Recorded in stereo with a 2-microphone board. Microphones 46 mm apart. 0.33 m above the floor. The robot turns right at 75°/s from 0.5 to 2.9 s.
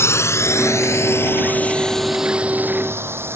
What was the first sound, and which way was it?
A drone, 70° left (ahead or behind).